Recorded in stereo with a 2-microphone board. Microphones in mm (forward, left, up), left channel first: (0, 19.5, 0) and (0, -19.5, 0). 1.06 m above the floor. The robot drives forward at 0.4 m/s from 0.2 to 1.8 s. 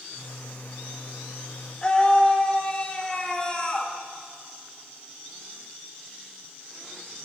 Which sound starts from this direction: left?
A scream, at 1.8 s.